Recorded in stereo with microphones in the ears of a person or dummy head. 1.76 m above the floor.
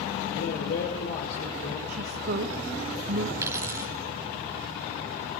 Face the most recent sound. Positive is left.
turn(degrees=-10)  # may be behind; listen again after turning